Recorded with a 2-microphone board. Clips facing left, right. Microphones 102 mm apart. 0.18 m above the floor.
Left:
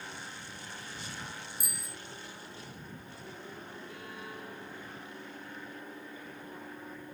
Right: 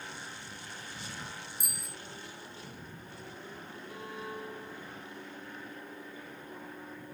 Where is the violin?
30° right (ahead or behind).